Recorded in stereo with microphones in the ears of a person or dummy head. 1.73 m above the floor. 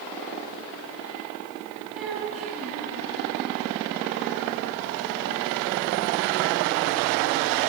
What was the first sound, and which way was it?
A child speaking, 10° right (ahead or behind).